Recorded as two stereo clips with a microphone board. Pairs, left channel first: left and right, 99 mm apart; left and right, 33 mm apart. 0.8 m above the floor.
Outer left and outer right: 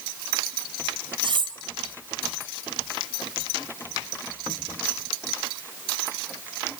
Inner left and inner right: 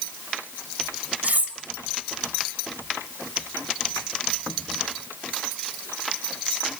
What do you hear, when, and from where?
1.2 s cutlery clinking: 55° right (ahead or behind), 2 m